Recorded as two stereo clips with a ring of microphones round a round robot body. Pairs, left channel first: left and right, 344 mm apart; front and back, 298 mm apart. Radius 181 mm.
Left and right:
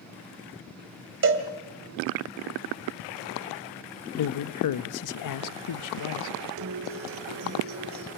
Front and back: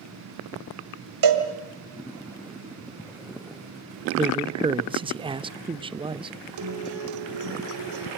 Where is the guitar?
145° right, 2.5 m.